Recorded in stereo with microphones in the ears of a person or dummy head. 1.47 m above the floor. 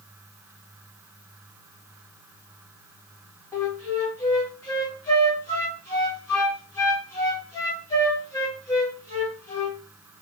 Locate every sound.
3.5 s a flute: 15° left (ahead or behind), 1.2 m